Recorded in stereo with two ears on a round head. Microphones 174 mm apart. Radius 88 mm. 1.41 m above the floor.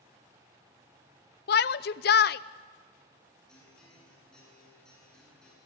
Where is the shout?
55° left (ahead or behind), 0.7 m.